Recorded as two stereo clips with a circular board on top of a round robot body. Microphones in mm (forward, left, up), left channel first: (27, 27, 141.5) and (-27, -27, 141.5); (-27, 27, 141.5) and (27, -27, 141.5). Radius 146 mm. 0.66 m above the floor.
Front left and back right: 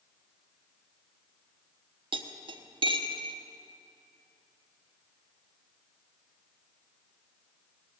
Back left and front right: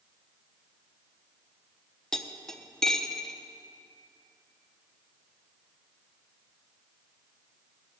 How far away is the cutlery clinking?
About 0.9 m.